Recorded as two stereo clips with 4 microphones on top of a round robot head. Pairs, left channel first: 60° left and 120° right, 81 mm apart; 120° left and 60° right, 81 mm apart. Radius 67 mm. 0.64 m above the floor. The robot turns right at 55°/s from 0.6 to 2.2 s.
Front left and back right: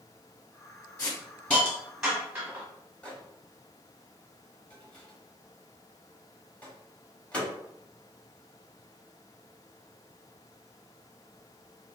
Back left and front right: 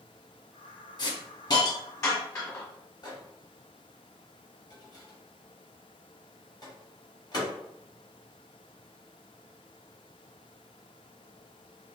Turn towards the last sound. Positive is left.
turn(degrees=130)